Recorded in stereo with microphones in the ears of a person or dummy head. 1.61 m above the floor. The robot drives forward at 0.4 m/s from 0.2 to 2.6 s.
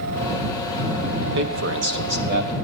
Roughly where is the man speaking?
Right.